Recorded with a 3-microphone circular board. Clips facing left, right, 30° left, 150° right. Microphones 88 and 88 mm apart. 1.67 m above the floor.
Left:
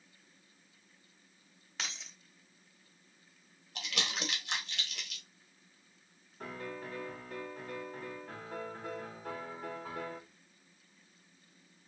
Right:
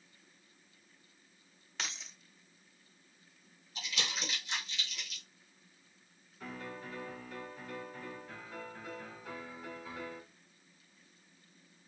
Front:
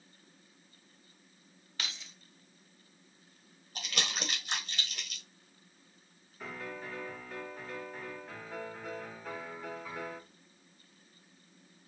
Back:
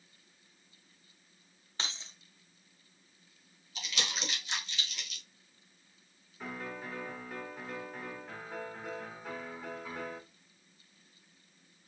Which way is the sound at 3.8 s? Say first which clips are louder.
Left 2 dB, front 1 dB; 70° left.